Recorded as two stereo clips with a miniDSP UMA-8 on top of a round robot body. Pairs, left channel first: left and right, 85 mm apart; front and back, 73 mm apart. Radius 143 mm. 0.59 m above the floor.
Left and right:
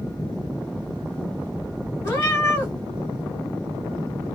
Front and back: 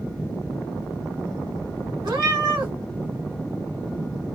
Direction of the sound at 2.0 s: 150° left.